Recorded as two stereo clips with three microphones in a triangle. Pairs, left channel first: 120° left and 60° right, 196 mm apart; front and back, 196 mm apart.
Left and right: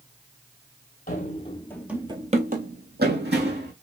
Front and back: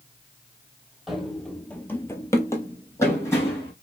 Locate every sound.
1.1 s running footsteps: 95° left, 0.8 m; by 3.7 s 75° right, 1.6 m